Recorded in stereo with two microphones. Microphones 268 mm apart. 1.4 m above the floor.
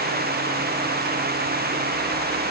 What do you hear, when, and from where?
Only background noise.